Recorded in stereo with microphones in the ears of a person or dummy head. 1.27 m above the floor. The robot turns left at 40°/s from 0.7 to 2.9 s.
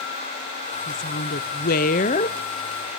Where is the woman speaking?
100° left, 0.6 m; by 2.4 s 40° left, 0.6 m.